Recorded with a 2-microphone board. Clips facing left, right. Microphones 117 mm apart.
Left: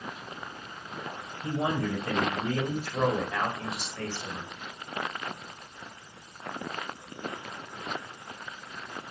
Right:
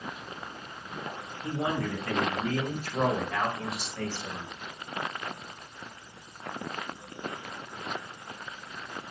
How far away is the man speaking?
About 1.7 m.